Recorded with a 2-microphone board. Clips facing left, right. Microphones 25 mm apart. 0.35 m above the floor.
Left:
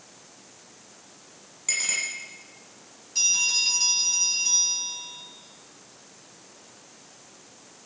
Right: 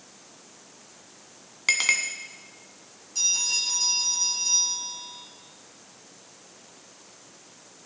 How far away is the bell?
About 6 m.